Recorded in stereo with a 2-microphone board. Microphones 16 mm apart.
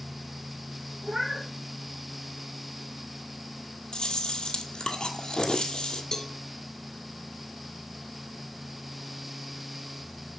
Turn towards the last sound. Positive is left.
turn(degrees=35)  # may be behind; listen again after turning